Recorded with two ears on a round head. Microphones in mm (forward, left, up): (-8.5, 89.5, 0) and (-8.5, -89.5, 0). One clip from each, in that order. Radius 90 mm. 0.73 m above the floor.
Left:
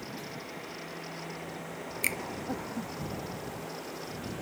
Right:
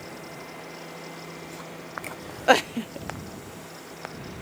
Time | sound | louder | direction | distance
2.0 | a finger snap | left 11 dB | 50° left (ahead or behind) | ?